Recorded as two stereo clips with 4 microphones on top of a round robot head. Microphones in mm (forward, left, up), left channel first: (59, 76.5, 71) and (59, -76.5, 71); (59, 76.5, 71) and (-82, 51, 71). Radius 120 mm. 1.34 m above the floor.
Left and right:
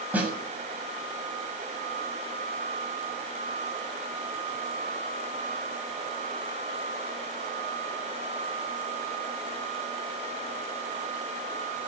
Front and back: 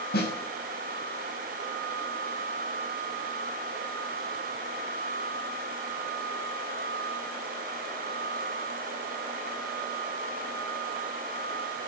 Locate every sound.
0.1 s a snare drum: 10° right, 6.5 m